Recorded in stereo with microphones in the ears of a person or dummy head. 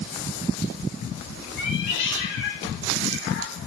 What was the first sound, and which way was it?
A cat meowing, 65° left (ahead or behind).